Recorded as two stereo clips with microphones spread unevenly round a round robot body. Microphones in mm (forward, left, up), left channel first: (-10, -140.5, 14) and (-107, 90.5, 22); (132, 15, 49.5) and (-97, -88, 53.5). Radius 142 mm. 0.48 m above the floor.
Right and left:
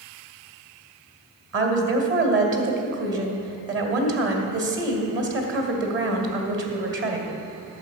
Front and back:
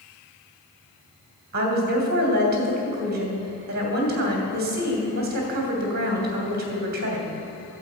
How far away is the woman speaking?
About 2 m.